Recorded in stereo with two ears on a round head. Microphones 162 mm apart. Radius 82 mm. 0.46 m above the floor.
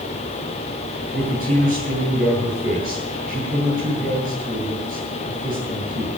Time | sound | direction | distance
1.1 | a man speaking | 45° right (ahead or behind) | 10 m